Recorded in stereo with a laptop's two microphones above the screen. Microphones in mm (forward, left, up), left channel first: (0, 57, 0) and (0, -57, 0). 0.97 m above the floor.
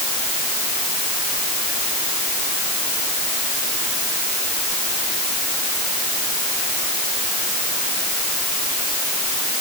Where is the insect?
No insect in this recording.